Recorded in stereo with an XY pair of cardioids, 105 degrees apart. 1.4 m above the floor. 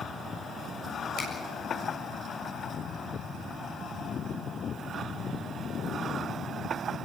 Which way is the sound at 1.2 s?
65° left.